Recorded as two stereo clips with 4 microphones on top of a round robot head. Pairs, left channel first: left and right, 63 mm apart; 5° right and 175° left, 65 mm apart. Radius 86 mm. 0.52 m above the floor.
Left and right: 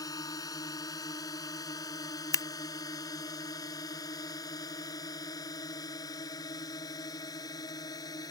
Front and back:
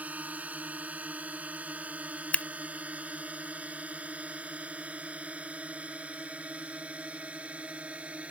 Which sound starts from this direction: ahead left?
Scissors, at 2.3 s.